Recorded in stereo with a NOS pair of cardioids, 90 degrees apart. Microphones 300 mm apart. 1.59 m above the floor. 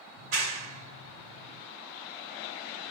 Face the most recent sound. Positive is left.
turn(degrees=-60)